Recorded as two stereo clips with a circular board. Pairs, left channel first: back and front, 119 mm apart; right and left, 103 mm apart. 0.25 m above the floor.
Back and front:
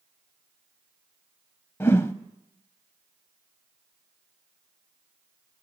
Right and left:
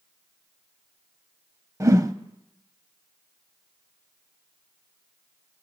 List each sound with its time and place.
1.8 s a whoosh: 125° left, 0.6 m